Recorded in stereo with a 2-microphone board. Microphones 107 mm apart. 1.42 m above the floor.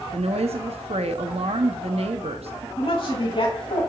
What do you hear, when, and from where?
0.1 s a woman speaking: 70° right (ahead or behind), 0.6 m
2.8 s a woman speaking: 55° left (ahead or behind), 2 m